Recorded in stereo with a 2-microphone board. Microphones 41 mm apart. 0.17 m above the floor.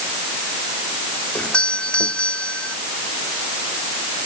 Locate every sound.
1.4 s a doorbell: 25° left (ahead or behind)